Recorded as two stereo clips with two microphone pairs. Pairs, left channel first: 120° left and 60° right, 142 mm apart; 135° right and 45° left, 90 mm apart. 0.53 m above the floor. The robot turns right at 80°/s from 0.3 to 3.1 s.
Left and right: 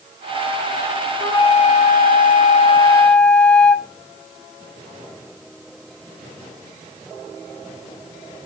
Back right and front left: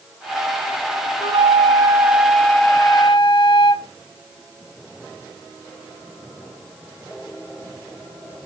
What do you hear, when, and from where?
1.2 s a flute: 50° left, 0.8 m; by 3.9 s 155° right, 0.8 m